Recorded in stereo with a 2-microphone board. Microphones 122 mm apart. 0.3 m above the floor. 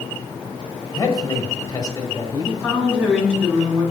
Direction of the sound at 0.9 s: 35° left (ahead or behind).